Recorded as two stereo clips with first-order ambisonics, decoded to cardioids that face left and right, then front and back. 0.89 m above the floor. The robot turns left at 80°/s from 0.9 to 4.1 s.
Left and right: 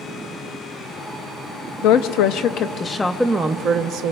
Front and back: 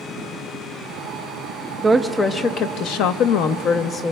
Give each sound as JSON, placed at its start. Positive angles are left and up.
{"t": 1.8, "sound": "a woman speaking", "azimuth_deg": 105, "distance_m": 0.5}